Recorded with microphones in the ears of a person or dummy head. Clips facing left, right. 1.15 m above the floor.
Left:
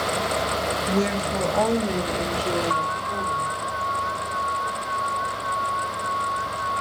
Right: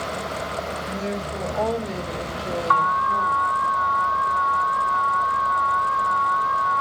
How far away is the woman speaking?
About 1.4 m.